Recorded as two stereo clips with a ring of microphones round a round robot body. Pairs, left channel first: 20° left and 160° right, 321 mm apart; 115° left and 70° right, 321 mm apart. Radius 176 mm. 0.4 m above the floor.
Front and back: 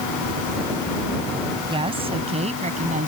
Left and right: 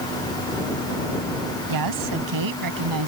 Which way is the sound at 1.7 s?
85° right.